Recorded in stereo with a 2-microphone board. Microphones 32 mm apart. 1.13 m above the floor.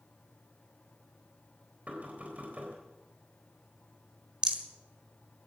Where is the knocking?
50° right (ahead or behind), 3.5 m.